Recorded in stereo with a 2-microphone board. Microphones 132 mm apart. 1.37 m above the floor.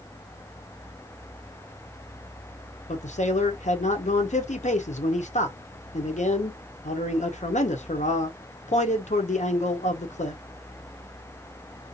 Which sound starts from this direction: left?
A man speaking, at 2.9 s.